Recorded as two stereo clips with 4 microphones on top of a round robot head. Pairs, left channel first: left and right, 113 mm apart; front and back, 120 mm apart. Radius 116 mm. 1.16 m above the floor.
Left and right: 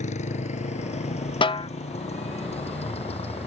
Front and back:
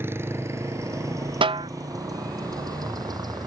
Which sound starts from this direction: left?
A motorcycle, at 0.0 s.